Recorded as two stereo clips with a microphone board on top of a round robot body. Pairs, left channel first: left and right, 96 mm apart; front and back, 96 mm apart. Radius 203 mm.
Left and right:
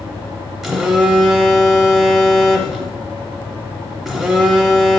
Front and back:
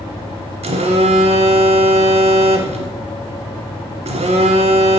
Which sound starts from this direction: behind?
A phone buzzing, at 0.6 s.